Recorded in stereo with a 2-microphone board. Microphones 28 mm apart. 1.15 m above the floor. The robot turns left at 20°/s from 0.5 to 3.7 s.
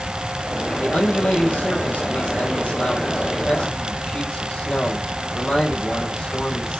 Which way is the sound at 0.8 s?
110° left.